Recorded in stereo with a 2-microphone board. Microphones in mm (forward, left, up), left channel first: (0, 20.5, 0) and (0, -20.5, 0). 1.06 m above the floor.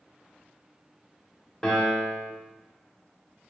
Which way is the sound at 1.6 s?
15° left (ahead or behind).